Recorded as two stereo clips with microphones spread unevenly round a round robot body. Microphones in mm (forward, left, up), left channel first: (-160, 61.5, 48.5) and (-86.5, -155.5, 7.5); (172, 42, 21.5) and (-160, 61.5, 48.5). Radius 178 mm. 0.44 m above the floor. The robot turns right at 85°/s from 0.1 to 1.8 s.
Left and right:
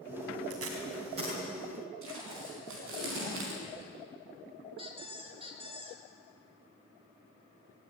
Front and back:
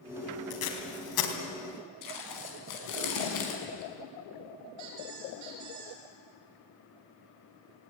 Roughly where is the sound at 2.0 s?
Ahead right.